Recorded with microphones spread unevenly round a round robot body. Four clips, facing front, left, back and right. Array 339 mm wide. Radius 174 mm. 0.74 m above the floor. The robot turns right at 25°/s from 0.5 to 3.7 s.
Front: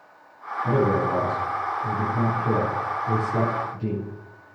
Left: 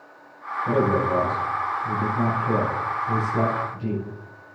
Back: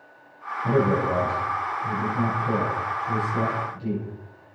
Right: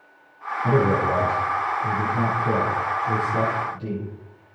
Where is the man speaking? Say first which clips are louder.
Right 1 dB, even; 90° right, 7.5 m; by 4.0 s 15° right, 7.5 m.